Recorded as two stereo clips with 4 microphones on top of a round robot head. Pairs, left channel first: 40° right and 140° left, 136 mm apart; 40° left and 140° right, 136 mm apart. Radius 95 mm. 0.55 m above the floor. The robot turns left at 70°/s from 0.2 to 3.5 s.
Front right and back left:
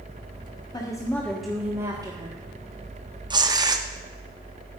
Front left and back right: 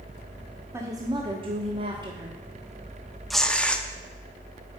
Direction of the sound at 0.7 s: 80° right.